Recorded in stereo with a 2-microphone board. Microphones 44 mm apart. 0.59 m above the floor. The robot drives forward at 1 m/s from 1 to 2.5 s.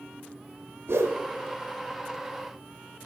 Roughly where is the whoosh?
Right.